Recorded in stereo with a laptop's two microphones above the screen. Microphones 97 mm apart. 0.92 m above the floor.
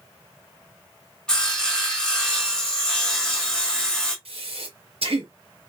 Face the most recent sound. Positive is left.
turn(degrees=-75)  # may be behind; listen again after turning